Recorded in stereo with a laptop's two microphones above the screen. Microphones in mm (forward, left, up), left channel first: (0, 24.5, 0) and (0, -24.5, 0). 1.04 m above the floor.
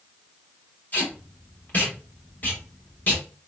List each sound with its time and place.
0.9 s tape being pulled: 40° left (ahead or behind), 1.1 m